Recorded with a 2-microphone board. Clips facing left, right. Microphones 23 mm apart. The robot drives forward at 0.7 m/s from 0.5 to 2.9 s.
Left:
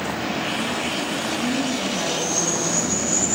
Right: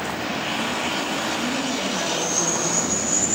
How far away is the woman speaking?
About 3 m.